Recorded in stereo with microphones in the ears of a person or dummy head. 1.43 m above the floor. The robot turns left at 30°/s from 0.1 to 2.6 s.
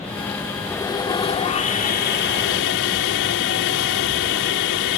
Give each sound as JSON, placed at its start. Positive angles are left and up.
{"t": 0.7, "sound": "sawing", "azimuth_deg": 165}